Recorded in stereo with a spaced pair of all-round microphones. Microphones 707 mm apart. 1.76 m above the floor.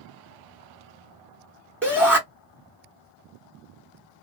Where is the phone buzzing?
No phone buzzing in this recording.